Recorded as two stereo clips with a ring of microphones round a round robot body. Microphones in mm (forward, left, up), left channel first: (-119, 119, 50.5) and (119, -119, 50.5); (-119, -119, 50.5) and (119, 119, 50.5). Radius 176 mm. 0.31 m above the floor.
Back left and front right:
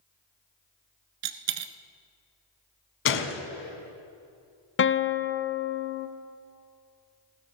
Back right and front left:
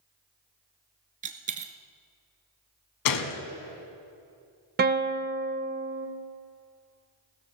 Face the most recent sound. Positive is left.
turn(degrees=95)